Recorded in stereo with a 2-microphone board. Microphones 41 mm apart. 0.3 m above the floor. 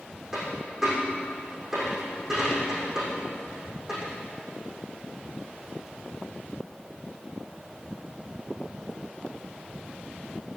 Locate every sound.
0.3 s a dropped coin: 10° right (ahead or behind), 6.5 m